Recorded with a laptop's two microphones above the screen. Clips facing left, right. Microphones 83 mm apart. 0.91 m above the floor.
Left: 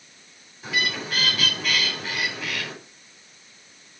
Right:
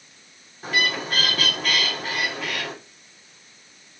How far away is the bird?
About 3 m.